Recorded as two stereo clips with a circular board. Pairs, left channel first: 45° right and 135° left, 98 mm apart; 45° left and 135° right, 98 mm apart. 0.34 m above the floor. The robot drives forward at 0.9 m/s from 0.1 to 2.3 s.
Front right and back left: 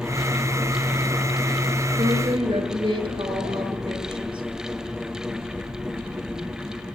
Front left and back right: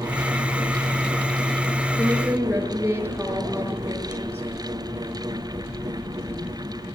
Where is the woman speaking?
155° left, 5.5 m.